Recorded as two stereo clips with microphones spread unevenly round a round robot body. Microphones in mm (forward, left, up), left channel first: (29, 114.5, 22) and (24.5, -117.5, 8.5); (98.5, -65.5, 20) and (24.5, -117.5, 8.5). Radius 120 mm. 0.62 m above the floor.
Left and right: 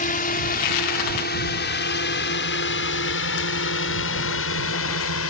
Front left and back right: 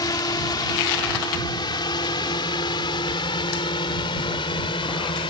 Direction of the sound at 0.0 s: 55° left.